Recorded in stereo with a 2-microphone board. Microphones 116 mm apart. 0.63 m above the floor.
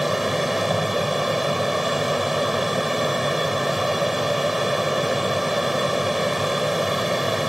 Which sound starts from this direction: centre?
An aircraft, at 0.0 s.